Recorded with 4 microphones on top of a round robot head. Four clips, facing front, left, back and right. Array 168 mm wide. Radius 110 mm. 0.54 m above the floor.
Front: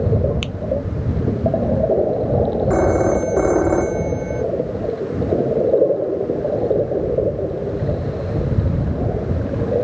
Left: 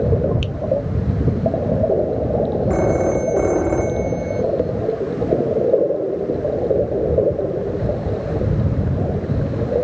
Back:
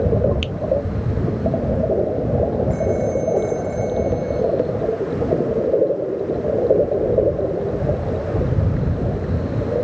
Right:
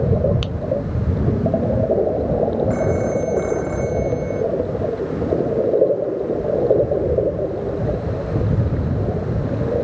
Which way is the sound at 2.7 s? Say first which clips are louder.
Left 2 dB, front 4 dB; 30° left.